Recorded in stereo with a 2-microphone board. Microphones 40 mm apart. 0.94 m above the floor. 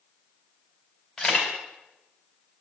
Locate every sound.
1.2 s a camera shutter: 20° left (ahead or behind), 3.5 m